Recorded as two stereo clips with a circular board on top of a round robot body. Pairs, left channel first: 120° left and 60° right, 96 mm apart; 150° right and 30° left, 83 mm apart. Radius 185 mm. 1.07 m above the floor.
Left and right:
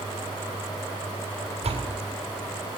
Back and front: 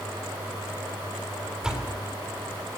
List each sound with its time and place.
1.6 s a door slam: 55° right, 7.5 m